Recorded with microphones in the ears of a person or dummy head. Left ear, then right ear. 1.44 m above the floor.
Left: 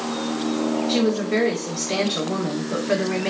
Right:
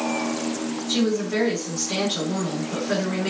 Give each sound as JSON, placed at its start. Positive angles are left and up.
{"t": 0.9, "sound": "a woman speaking", "side_deg": 30, "distance_m": 1.3}